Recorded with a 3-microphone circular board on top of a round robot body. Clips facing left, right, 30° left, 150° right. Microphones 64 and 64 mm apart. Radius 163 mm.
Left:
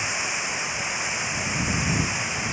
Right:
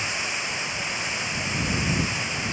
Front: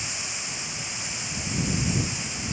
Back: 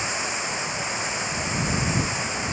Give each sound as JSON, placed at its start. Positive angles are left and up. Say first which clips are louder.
{"t": 0.0, "sound": "running water", "louder": "left 1 dB, back 8 dB", "azimuth_deg": 165}